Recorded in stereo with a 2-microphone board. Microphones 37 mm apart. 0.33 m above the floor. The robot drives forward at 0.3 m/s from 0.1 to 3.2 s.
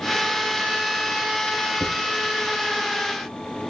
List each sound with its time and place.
1.8 s writing: 15° right (ahead or behind), 2.5 m